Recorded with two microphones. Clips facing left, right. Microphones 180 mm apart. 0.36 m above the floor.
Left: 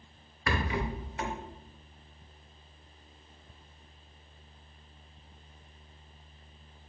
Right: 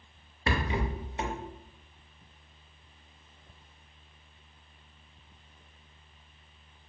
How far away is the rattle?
About 0.5 m.